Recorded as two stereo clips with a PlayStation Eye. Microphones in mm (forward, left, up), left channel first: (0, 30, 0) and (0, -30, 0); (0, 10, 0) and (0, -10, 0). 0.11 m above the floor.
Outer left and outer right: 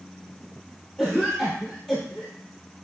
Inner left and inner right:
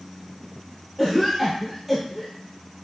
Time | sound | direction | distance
1.0 | a cough | 15° left (ahead or behind) | 2 m